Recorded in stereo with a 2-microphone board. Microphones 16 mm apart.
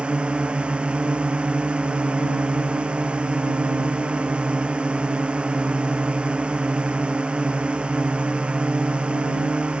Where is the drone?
85° right.